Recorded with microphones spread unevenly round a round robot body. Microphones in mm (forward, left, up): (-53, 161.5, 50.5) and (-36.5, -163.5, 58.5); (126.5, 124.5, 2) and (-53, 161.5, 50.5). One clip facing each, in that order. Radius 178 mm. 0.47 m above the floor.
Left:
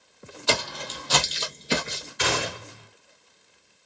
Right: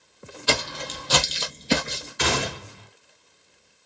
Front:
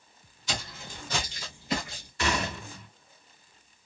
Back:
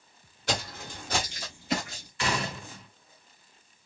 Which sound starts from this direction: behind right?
Footsteps, at 0.5 s.